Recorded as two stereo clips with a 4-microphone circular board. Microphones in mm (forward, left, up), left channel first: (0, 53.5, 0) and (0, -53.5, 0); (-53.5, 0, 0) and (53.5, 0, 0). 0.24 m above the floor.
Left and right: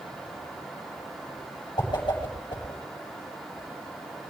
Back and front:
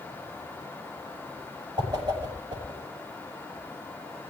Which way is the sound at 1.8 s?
45° left.